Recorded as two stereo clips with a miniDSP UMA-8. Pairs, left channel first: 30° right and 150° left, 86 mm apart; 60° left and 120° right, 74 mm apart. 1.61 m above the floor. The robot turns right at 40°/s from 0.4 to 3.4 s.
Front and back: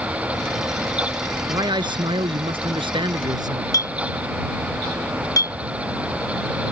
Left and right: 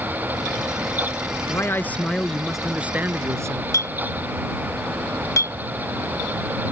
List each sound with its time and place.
1.5 s a man speaking: 110° left; by 3.6 s 175° right
3.7 s a clink: 15° left